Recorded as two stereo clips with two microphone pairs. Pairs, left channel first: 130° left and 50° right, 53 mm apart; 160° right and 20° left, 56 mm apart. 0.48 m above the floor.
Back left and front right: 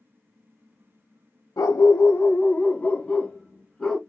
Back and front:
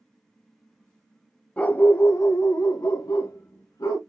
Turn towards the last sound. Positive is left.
turn(degrees=-150)